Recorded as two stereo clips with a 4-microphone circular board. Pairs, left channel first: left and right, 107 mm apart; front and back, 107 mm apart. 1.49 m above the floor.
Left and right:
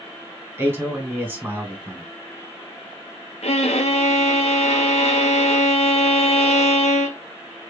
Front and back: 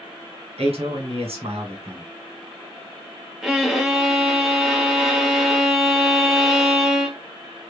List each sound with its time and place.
0.6 s a man speaking: 160° right, 1.7 m
3.4 s a violin: 95° left, 0.8 m